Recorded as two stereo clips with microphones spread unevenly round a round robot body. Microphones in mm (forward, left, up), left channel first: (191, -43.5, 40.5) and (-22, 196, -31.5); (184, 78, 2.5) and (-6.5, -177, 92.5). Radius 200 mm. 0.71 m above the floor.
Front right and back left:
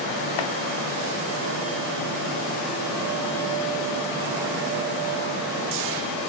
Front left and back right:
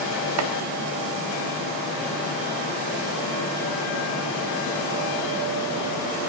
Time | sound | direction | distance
0.4 | chopping | 80° right | 1.0 m